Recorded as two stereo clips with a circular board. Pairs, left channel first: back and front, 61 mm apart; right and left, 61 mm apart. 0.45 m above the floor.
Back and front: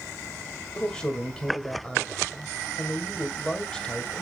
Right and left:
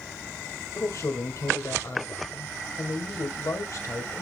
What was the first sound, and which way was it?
A man speaking, 105° right.